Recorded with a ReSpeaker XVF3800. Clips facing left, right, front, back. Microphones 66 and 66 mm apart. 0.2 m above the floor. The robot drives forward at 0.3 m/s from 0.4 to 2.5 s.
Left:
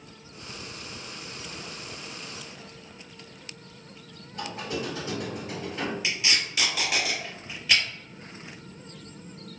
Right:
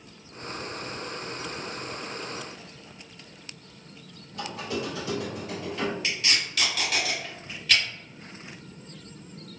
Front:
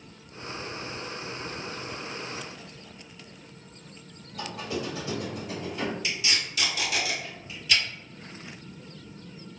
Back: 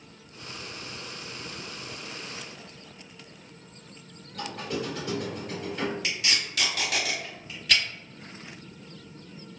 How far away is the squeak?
About 1.8 m.